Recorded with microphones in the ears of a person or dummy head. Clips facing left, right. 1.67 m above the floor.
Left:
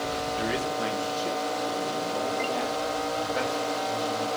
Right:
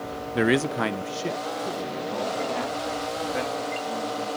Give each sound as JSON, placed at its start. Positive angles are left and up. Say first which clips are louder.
{"t": 0.3, "sound": "a man speaking", "louder": "right 10 dB", "side_deg": -70, "distance_m": 0.7}